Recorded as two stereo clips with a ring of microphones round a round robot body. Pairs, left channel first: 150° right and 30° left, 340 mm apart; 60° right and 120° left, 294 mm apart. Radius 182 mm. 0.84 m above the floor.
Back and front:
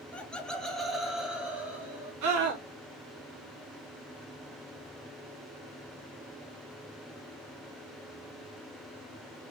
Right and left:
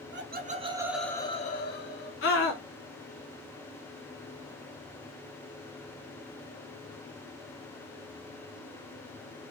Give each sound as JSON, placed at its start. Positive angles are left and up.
{"t": 0.1, "sound": "laughter", "azimuth_deg": 125, "distance_m": 1.0}
{"t": 2.2, "sound": "a scream", "azimuth_deg": -10, "distance_m": 1.1}